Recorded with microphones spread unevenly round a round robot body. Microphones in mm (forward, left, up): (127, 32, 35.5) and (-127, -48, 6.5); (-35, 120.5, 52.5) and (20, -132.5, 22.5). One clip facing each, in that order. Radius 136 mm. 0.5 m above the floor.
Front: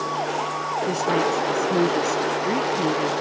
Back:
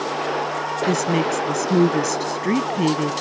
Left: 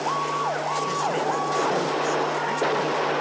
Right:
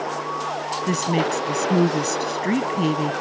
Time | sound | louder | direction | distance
0.9 | a woman speaking | back 2 dB, right 7 dB | 105° right | ?